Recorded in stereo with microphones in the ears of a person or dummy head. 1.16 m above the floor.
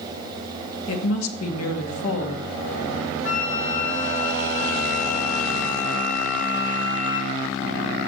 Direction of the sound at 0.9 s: 80° left.